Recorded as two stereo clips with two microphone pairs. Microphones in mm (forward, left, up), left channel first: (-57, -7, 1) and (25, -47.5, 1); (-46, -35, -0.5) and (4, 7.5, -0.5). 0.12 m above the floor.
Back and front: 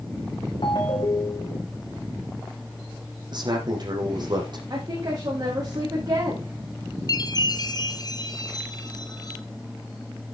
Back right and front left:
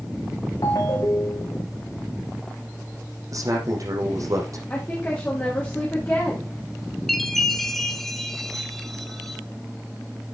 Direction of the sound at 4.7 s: 70° right.